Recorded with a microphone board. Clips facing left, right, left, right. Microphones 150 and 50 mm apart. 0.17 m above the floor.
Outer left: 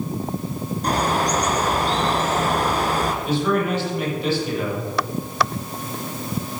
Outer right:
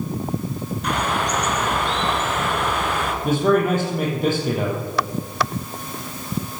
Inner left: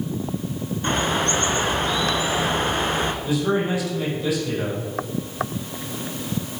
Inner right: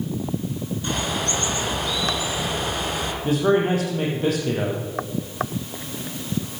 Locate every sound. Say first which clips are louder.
0.8 s a bird: outer left 3 dB, inner left 5 dB; 40° left (ahead or behind), 1.8 m
3.2 s a man speaking: outer right 6 dB, inner right 6 dB; 50° right (ahead or behind), 6 m